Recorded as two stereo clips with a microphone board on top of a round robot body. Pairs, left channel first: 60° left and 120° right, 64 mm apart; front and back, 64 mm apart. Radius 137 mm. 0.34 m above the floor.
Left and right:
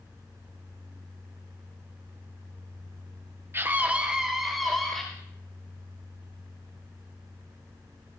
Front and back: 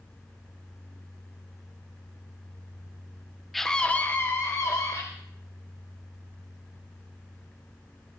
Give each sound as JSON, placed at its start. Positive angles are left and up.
{"t": 3.5, "sound": "a scream", "azimuth_deg": -85, "distance_m": 1.2}